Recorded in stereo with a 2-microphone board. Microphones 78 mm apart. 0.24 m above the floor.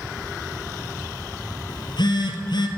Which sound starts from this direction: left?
A phone buzzing, at 1.7 s.